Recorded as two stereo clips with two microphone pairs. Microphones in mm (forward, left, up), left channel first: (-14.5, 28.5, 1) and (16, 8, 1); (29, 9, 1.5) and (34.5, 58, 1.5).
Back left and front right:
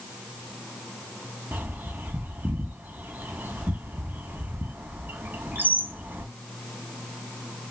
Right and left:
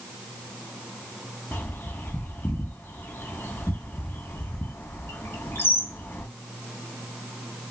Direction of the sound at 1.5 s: 60° right.